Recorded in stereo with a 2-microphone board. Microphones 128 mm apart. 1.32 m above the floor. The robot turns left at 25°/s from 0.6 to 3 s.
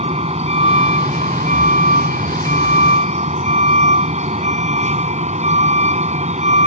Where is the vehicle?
55° right; by 6.7 s 115° right.